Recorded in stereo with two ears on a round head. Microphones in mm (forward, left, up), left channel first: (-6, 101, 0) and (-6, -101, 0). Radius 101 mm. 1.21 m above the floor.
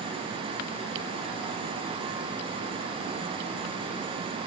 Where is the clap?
I don't hear a clap.